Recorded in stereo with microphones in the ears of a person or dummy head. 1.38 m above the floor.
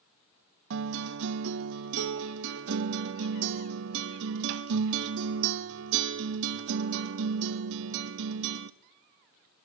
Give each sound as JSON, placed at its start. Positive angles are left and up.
{"t": 0.7, "sound": "a guitar", "side_deg": -65, "distance_m": 1.1}